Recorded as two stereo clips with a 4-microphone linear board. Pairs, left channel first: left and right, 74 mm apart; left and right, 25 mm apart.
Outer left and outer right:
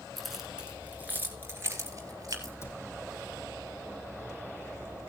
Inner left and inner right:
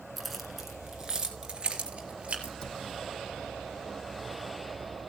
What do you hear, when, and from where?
0.2 s keys jangling: centre (ahead or behind), 1.7 m; by 2.5 s 50° right (ahead or behind), 3 m
2.6 s a cupboard door: 35° left (ahead or behind), 2.5 m